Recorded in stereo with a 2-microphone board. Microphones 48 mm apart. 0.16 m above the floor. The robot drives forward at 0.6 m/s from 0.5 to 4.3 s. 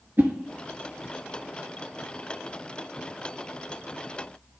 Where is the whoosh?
55° right (ahead or behind), 0.8 m.